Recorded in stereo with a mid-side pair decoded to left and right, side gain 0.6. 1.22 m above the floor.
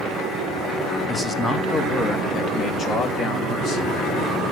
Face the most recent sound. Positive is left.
turn(degrees=50)